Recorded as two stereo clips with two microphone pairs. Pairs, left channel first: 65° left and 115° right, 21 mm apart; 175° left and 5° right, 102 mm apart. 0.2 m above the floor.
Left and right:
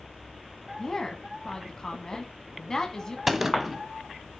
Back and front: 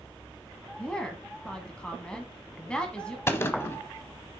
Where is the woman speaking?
100° left, 1.5 m.